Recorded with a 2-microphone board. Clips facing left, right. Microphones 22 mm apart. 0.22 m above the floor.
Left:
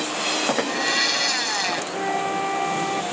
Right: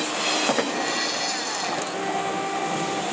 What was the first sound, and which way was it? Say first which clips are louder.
A blender: left 3 dB; 30° left (ahead or behind).